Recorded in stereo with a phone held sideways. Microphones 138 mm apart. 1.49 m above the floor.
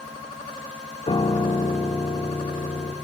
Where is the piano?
40° left (ahead or behind), 1.3 m.